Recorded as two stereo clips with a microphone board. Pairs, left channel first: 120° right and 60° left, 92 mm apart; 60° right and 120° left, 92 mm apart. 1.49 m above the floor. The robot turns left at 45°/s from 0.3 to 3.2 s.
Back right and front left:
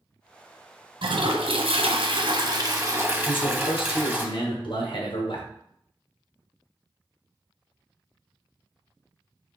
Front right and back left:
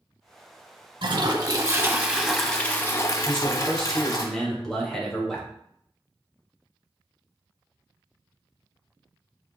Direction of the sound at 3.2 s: 145° right.